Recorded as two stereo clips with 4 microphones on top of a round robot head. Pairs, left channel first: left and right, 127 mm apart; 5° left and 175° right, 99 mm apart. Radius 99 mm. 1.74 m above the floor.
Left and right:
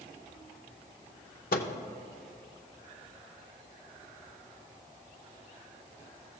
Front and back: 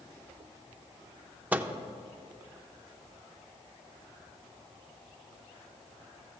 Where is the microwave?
110° left, 0.6 m.